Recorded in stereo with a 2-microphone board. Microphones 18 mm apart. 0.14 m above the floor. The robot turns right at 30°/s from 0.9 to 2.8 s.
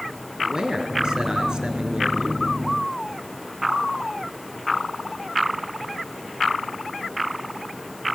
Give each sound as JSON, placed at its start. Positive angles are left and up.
{"t": 0.4, "sound": "a man speaking", "azimuth_deg": -120, "distance_m": 2.0}